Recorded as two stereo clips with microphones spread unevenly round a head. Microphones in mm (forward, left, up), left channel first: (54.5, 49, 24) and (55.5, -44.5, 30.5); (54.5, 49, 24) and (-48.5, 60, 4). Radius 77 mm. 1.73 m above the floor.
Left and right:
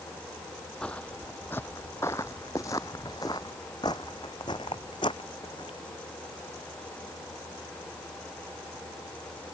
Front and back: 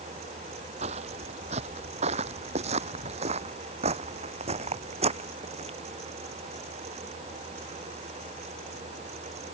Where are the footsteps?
175° left; by 5.8 s 150° left.